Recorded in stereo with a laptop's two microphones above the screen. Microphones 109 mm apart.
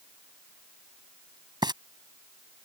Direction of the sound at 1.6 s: 45° right (ahead or behind).